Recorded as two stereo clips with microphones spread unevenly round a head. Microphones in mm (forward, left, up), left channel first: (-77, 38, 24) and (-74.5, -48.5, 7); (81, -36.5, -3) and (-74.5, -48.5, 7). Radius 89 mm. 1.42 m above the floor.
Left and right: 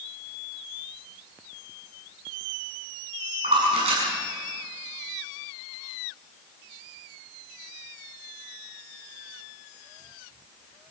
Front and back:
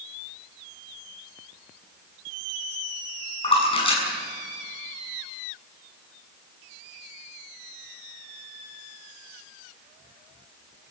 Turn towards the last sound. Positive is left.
turn(degrees=-50)